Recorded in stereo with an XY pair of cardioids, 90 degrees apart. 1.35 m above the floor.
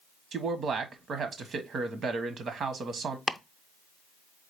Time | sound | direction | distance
0.3 | a man speaking | 65° right | 1.1 m
3.3 | chopping | 25° left | 0.6 m